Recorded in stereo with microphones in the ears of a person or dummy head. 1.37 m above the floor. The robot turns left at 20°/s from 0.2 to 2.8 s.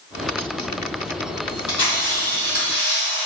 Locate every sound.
1.5 s a camera shutter: 35° left (ahead or behind), 1.6 m; by 3.3 s 10° left (ahead or behind), 1.6 m